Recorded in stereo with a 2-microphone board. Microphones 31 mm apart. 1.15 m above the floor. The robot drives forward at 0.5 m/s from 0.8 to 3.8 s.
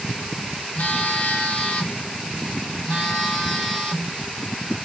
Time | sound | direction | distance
0.8 | a phone buzzing | 60° left (ahead or behind) | 0.5 m